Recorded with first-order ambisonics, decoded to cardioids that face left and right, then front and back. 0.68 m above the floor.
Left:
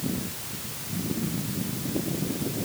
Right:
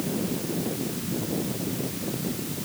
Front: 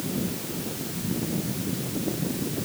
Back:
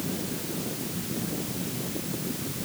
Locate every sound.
Only background noise.